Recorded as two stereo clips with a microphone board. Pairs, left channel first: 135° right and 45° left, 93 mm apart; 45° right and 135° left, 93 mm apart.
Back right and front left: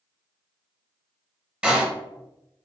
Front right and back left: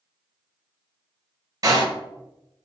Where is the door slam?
115° left, 0.8 m.